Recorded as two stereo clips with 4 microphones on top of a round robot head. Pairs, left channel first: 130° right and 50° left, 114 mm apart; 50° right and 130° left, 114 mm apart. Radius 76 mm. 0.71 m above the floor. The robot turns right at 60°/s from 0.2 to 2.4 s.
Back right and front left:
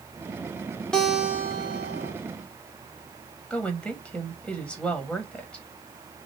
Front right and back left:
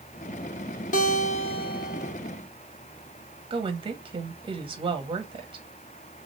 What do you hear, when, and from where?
0.9 s a guitar: 50° right, 1.2 m; by 2.1 s 25° left, 1.2 m
3.5 s a woman speaking: 145° left, 1.3 m